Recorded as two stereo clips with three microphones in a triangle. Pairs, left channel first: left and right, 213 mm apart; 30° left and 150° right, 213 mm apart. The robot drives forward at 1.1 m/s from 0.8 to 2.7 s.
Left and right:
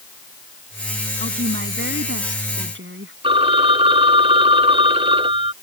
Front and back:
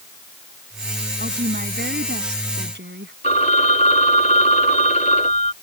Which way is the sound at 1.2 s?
105° right.